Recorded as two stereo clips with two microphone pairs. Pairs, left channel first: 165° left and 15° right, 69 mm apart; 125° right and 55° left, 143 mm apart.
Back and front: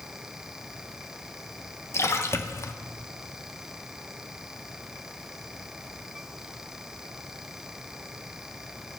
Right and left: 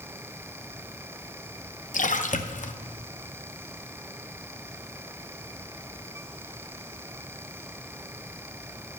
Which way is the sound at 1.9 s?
145° right.